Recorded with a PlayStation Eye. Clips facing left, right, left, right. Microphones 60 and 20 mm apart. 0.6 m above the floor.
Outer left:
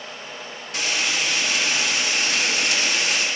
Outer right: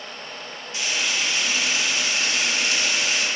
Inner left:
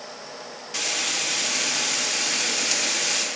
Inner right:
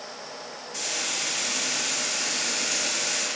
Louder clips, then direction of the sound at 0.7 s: Outer left 2 dB, inner left 4 dB; 65° left (ahead or behind).